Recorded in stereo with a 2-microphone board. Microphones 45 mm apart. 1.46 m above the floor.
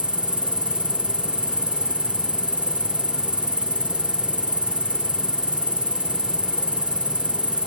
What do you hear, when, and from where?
0.0 s an insect: 30° right (ahead or behind)